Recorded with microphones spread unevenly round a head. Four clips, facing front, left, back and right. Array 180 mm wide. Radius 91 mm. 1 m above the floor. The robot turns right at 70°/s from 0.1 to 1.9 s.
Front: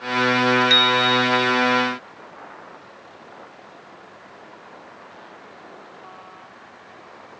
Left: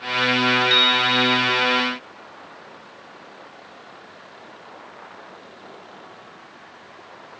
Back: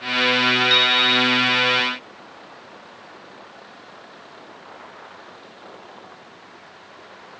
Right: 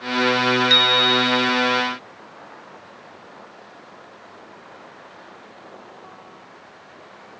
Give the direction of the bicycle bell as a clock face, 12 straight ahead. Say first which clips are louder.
Right 1 dB, front 2 dB; 2 o'clock.